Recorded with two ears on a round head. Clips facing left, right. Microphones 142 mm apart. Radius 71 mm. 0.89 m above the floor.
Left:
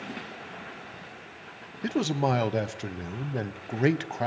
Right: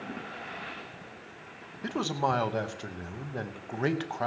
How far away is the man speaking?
About 1.0 m.